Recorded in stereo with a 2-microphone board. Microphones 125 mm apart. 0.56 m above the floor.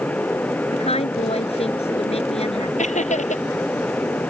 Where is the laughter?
70° left (ahead or behind).